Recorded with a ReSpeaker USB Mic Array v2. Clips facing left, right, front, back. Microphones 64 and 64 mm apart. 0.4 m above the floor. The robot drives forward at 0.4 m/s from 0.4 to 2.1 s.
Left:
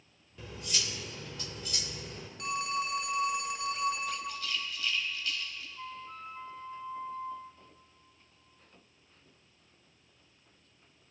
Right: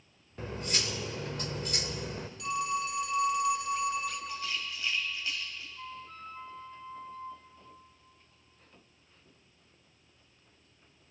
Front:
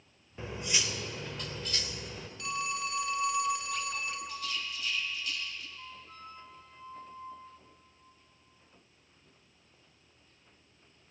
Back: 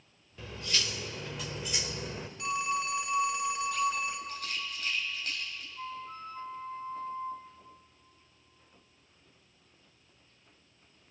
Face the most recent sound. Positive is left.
turn(degrees=165)